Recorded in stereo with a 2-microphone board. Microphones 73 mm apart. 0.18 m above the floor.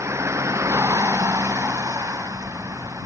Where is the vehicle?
40° right (ahead or behind); by 3.1 s 45° right (ahead or behind).